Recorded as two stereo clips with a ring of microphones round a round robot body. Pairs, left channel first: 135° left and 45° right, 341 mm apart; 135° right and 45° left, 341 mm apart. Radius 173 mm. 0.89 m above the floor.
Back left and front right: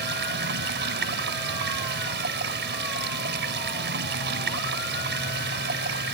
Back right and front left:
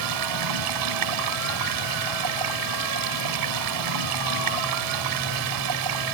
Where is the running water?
15° left.